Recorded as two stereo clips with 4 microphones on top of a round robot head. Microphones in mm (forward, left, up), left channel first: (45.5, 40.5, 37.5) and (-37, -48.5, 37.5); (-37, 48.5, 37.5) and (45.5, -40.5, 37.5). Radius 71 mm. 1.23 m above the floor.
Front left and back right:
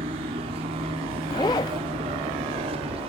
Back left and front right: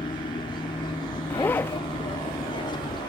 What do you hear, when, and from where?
0.0 s an aircraft: 175° right
1.3 s a zipper: 70° left